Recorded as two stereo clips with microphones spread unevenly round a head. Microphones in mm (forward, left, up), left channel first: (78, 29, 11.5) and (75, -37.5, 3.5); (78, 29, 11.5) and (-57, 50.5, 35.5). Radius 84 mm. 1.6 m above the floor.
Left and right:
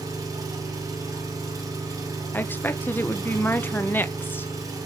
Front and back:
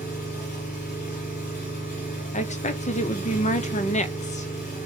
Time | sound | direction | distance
0.0 | an engine running | 60° right | 6.5 m
2.3 | a woman speaking | 25° left | 1.0 m